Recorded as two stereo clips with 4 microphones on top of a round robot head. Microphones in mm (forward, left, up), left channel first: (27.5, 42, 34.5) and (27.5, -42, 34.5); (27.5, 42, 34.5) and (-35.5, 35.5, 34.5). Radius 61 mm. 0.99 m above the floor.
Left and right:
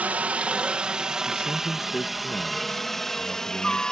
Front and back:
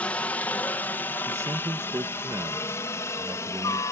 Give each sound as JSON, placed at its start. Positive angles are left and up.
{"t": 0.0, "sound": "a helicopter", "azimuth_deg": -35}
{"t": 1.3, "sound": "a man speaking", "azimuth_deg": 160}